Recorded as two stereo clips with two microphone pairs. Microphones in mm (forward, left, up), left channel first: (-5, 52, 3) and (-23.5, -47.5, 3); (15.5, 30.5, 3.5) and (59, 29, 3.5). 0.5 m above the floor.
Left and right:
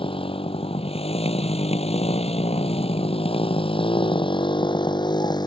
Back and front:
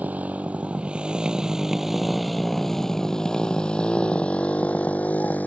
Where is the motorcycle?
50° left; by 5.5 s 125° left.